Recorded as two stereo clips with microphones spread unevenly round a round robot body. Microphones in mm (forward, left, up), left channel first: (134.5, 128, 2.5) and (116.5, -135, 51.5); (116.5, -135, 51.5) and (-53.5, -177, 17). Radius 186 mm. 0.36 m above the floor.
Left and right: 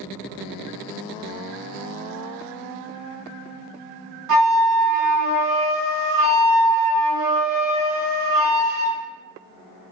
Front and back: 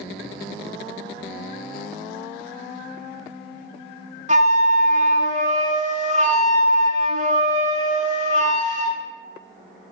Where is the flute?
120° right, 0.8 m.